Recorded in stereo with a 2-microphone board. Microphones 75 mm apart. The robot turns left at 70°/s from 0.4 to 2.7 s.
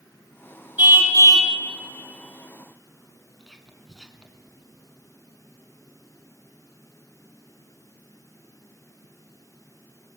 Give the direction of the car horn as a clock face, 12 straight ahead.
1 o'clock.